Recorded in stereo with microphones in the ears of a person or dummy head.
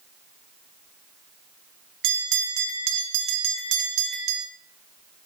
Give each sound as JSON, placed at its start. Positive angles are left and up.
{"t": 2.0, "sound": "a bell", "side_deg": -70, "distance_m": 2.5}